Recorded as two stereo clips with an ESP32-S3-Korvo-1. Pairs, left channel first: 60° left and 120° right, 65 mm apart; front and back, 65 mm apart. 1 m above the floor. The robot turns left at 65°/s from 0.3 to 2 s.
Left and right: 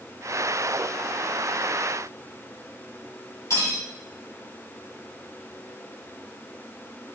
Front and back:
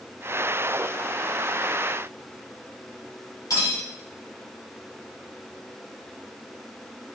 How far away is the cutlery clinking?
About 1.5 m.